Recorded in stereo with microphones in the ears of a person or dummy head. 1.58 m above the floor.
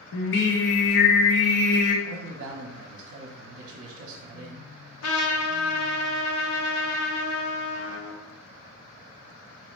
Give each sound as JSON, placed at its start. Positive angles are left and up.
{"t": 0.1, "sound": "singing", "side_deg": 70, "distance_m": 0.7}
{"t": 2.0, "sound": "a man speaking", "side_deg": -55, "distance_m": 0.7}
{"t": 5.0, "sound": "a trumpet", "side_deg": 85, "distance_m": 0.8}